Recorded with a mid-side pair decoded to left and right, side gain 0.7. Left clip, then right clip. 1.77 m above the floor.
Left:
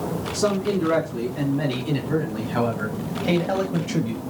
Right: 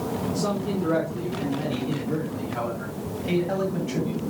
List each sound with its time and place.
0.3 s a man speaking: 60° left, 3.5 m; by 4.2 s 25° left, 2.5 m